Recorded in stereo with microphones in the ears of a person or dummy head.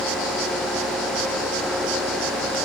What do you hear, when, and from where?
Only background noise.